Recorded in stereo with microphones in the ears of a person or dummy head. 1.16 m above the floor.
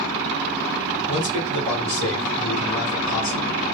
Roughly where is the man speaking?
Left.